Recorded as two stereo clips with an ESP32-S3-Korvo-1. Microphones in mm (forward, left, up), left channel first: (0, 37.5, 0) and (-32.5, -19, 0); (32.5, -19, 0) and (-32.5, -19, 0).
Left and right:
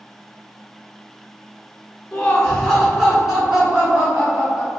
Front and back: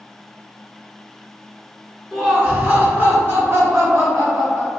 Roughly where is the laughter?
Left.